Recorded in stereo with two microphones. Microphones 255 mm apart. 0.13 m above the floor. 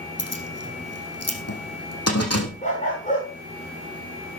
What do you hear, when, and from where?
0.2 s keys jangling: 70° left (ahead or behind), 4 m
2.6 s a dog barking: 30° left (ahead or behind), 6.5 m